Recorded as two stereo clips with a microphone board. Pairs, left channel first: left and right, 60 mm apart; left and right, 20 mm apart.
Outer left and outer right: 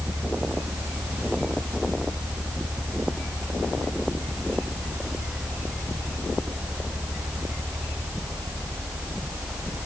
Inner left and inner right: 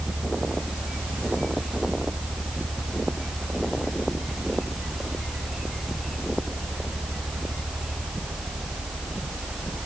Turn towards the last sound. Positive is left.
No sound to turn to.